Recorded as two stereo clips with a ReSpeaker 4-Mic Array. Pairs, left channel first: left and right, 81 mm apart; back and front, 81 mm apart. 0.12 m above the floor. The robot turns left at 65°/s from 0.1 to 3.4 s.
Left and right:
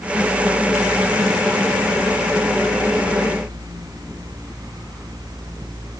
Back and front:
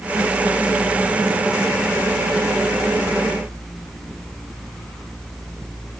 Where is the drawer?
I don't hear a drawer.